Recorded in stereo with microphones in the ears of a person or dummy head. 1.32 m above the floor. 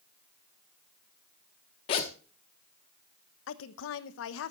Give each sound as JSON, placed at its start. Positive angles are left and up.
{"t": 1.9, "sound": "a zipper", "side_deg": 30, "distance_m": 0.9}
{"t": 3.5, "sound": "a woman speaking", "side_deg": 75, "distance_m": 0.9}